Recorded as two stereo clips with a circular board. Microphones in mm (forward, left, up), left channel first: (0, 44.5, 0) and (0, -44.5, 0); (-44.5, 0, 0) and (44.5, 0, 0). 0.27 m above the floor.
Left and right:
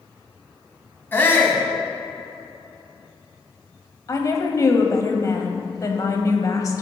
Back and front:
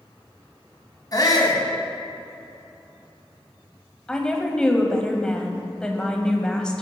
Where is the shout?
150° left, 2.5 m.